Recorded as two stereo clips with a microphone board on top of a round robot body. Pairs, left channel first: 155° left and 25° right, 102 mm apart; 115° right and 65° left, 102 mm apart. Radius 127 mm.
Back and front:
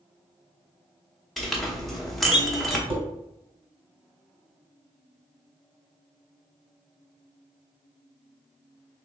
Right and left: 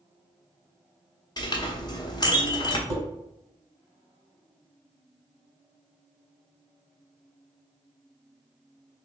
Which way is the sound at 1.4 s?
115° right.